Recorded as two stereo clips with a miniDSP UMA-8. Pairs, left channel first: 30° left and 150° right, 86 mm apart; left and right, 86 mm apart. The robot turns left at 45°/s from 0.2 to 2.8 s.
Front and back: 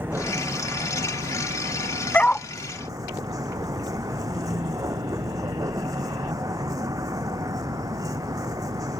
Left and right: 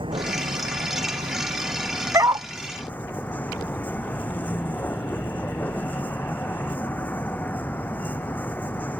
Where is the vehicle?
80° right; by 9.0 s 160° left.